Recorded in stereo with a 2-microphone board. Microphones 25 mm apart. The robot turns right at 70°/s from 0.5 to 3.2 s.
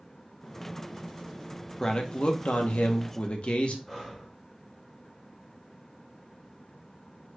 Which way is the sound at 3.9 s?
15° left (ahead or behind).